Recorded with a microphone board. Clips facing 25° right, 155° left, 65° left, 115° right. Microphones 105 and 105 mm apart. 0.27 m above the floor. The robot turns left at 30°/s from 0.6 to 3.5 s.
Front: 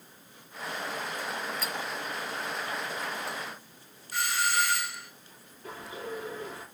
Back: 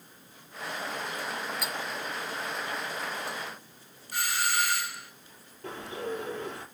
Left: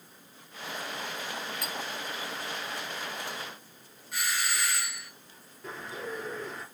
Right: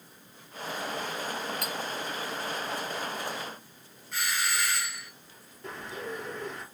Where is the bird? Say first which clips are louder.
Back 4 dB, even; 160° left, 3 m.